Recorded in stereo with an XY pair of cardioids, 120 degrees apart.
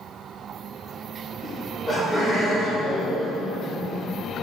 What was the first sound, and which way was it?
Laughter, 30° left.